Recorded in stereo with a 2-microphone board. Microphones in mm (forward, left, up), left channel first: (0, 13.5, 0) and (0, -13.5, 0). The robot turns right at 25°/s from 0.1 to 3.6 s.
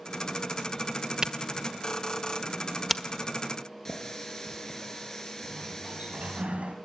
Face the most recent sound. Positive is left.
turn(degrees=-65)  # may be behind; listen again after turning